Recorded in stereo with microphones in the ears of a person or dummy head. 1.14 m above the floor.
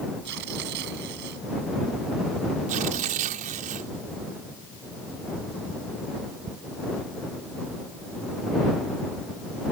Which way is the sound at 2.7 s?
45° right (ahead or behind).